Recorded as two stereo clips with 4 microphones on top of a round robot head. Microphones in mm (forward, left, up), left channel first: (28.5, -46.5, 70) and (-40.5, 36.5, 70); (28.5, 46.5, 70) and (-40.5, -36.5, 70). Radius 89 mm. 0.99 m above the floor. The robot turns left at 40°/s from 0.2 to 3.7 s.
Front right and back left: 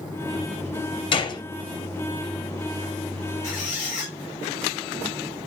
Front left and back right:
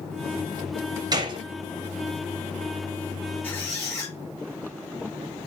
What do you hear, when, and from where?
1.1 s a gunshot: 85° right, 0.8 m; by 1.4 s 95° right, 0.8 m
3.4 s a squeak: 25° right, 1.3 m; by 4.1 s 35° right, 1.3 m